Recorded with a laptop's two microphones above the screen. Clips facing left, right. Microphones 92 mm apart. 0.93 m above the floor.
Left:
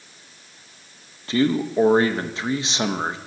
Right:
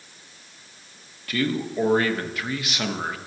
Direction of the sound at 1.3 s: 25° left (ahead or behind).